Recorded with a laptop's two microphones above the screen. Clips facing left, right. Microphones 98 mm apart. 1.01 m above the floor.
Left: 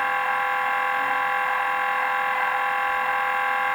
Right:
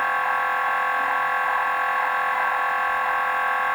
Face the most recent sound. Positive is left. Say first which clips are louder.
# right 1 dB
turn(degrees=-20)  # may be behind; listen again after turning